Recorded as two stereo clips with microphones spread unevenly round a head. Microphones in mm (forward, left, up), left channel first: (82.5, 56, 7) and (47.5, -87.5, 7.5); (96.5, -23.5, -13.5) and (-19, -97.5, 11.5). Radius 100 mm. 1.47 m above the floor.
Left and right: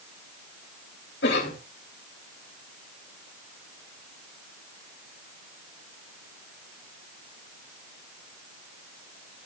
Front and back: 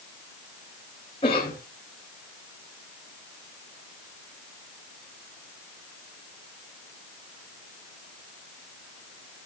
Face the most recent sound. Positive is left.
turn(degrees=100)